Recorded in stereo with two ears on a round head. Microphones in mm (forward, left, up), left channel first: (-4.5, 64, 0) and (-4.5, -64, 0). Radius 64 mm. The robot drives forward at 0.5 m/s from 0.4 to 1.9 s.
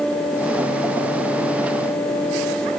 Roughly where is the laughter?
No laughter in this recording.